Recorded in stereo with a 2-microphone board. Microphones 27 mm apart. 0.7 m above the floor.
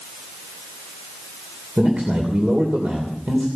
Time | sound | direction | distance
1.8 | a man speaking | 50° right (ahead or behind) | 2.5 m